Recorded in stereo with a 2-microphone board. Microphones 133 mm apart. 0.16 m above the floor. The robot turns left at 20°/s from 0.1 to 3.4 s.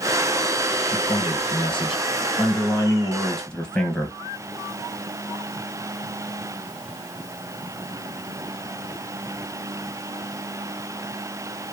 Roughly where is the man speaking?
Ahead left.